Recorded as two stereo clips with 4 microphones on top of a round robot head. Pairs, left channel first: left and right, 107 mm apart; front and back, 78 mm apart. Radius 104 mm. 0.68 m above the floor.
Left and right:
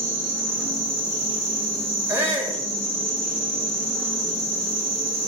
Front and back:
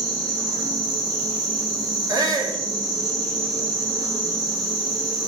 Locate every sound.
0.0 s an insect: 150° right, 2.5 m
2.1 s a shout: 150° right, 1.5 m